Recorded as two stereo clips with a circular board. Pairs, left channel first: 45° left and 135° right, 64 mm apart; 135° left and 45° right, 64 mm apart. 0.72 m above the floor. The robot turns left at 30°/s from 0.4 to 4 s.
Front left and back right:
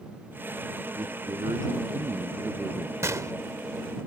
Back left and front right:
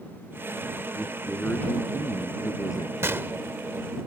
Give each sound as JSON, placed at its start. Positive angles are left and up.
{"t": 0.9, "sound": "a man speaking", "azimuth_deg": -140}
{"t": 3.0, "sound": "a gunshot", "azimuth_deg": -90}